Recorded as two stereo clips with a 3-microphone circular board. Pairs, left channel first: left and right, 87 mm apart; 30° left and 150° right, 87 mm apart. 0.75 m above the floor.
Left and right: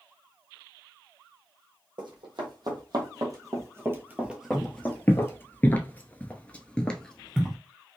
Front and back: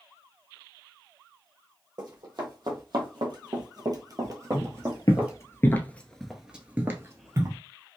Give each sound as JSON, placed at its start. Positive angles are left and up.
{"t": 2.0, "sound": "running footsteps", "azimuth_deg": -115, "distance_m": 1.9}
{"t": 4.5, "sound": "footsteps", "azimuth_deg": 25, "distance_m": 1.2}